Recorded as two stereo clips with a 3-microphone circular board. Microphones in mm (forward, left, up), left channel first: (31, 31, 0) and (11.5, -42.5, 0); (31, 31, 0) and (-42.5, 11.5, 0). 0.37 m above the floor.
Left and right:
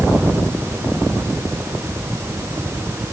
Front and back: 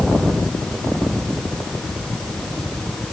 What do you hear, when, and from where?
Only background noise.